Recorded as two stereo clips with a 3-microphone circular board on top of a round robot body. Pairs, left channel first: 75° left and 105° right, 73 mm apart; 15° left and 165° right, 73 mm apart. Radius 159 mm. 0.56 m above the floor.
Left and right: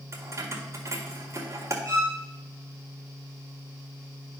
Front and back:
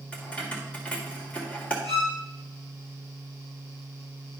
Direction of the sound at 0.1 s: 55° right.